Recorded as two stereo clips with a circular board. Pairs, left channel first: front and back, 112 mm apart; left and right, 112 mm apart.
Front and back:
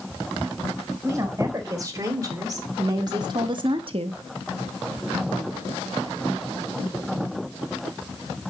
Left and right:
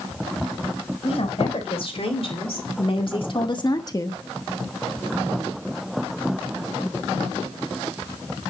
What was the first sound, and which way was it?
A woman speaking, 115° left.